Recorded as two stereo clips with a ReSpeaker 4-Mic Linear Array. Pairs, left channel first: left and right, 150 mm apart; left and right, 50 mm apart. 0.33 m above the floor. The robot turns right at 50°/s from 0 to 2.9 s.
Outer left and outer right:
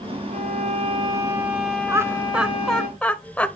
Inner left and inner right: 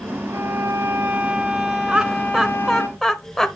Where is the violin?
70° right, 1.5 m; by 2.9 s 60° left, 1.5 m.